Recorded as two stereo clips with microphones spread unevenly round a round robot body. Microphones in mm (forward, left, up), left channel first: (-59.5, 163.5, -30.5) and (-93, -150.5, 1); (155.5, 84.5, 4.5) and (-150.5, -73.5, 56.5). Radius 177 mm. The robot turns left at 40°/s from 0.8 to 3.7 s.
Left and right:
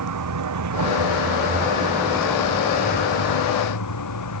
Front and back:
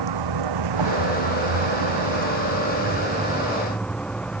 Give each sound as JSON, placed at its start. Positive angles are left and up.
{"t": 0.0, "sound": "a vehicle", "azimuth_deg": -125}